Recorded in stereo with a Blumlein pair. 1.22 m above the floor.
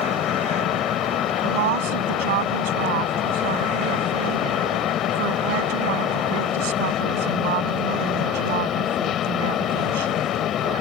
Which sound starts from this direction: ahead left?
A fan, at 0.0 s.